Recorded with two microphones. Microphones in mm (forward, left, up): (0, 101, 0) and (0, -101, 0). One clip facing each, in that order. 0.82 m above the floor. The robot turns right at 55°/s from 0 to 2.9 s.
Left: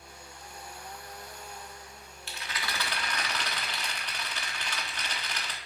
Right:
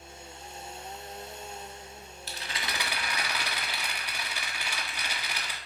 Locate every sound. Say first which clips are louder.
2.3 s a rattle: even; 45° right, 1.8 m; by 5.6 s 10° right, 1.8 m